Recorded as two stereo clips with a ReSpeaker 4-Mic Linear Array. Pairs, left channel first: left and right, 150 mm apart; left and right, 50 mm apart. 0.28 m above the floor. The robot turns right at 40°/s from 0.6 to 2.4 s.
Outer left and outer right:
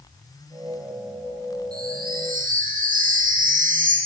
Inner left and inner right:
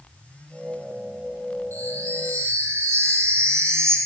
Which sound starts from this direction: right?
A chime, at 1.7 s.